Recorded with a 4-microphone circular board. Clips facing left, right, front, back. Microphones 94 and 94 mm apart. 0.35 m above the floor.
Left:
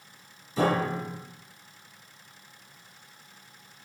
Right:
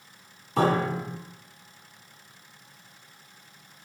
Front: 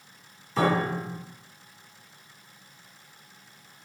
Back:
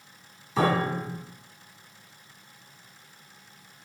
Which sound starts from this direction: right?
A piano, at 0.6 s.